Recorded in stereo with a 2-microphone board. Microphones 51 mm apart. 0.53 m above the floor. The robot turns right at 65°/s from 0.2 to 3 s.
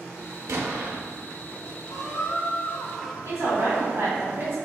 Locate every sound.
0.5 s an explosion: 70° right (ahead or behind), 0.8 m; by 0.9 s 40° right (ahead or behind), 0.8 m
1.9 s a squeak: 105° left, 0.6 m; by 3.1 s 175° left, 0.6 m
3.2 s a woman speaking: 60° right (ahead or behind), 1.7 m